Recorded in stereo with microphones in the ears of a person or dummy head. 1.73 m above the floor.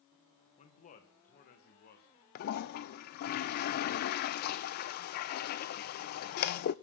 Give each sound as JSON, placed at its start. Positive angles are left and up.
{"t": 0.6, "sound": "a man speaking", "side_deg": 40, "distance_m": 1.6}
{"t": 2.4, "sound": "a toilet flushing", "side_deg": 45, "distance_m": 0.6}